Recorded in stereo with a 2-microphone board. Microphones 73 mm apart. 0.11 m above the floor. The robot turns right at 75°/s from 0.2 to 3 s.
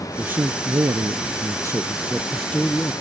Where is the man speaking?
155° right; by 2.9 s 50° left.